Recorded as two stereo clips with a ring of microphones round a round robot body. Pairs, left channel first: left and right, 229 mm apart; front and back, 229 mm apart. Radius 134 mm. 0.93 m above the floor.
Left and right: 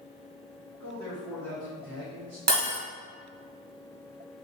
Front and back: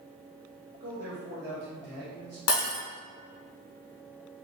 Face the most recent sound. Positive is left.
turn(degrees=-40)